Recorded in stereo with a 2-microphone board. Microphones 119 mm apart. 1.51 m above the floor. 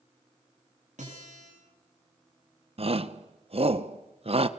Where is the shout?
55° right (ahead or behind), 1.4 m.